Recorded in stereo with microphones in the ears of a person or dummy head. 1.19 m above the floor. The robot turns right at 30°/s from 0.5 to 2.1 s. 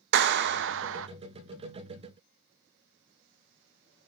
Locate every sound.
0.1 s a clap: 60° right (ahead or behind), 0.8 m; by 1.1 s 75° right (ahead or behind), 0.8 m